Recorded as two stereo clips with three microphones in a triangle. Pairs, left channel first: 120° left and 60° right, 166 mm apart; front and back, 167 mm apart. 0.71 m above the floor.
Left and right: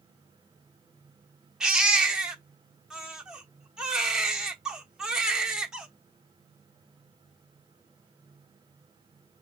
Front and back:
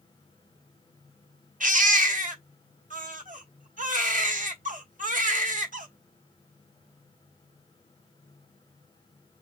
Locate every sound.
1.6 s a baby crying: 145° right, 1.1 m